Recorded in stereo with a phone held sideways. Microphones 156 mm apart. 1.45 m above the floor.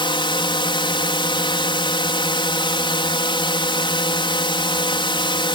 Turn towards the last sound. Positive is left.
turn(degrees=30)  # may be behind; listen again after turning